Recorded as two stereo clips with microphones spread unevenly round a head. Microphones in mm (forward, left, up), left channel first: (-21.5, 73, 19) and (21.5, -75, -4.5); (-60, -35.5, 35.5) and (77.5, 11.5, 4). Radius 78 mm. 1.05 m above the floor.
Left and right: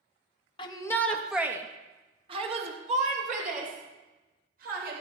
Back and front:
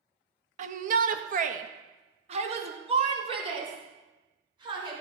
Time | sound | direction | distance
0.6 | a shout | 45° left | 1.6 m